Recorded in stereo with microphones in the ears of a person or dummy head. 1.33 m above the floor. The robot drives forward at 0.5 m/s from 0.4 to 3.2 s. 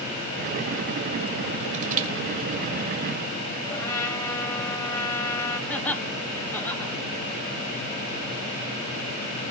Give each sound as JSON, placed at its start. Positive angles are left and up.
{"t": 1.7, "sound": "crushing", "side_deg": -40, "distance_m": 2.0}
{"t": 3.7, "sound": "a trumpet", "side_deg": 20, "distance_m": 4.0}
{"t": 5.7, "sound": "laughter", "side_deg": 10, "distance_m": 3.0}